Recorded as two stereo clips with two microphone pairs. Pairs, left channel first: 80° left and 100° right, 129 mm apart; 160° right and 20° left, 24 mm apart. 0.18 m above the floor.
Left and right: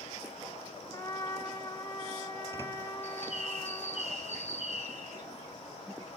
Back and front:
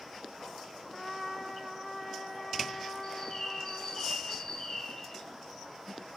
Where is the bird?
105° right, 1.8 m.